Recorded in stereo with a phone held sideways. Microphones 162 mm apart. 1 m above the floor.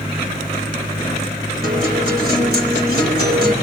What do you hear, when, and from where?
1.6 s a guitar: 85° right, 3.5 m